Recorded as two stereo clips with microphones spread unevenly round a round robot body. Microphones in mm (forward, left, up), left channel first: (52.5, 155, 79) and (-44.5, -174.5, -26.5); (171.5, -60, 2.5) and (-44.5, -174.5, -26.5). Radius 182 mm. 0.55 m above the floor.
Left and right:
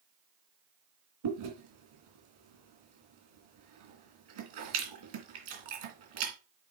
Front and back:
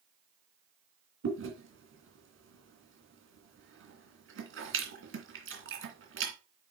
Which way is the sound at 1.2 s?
115° right.